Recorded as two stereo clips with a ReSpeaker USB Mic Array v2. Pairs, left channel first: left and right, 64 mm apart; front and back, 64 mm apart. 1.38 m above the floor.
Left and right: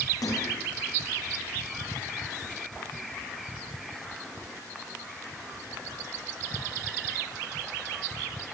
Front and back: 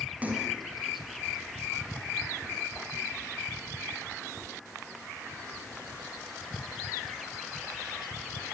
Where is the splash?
110° left, 7.5 m.